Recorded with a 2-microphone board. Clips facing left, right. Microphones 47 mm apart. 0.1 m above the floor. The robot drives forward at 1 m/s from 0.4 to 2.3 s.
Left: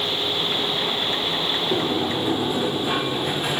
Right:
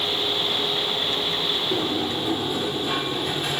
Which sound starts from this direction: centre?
A sliding door, at 1.7 s.